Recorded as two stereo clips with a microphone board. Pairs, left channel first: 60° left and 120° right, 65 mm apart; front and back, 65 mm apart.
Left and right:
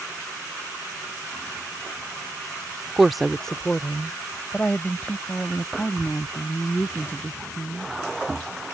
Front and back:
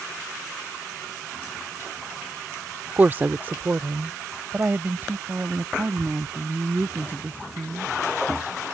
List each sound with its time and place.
3.0 s a woman speaking: 165° left; by 7.9 s 120° left